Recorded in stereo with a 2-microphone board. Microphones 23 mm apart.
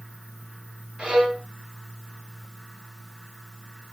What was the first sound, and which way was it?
A violin, 50° right (ahead or behind).